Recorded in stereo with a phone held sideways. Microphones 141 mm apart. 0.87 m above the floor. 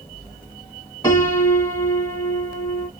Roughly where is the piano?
Left.